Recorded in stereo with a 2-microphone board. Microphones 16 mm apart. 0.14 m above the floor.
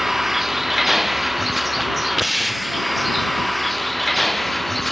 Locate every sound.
0.0 s a vehicle: 15° right (ahead or behind); by 4.9 s 5° left (ahead or behind)